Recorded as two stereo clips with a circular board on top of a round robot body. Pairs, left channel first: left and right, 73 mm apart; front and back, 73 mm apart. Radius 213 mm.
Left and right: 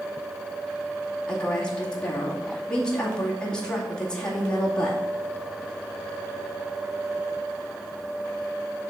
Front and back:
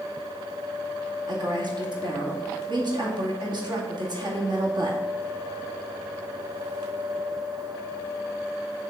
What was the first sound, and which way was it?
A woman speaking, 170° left.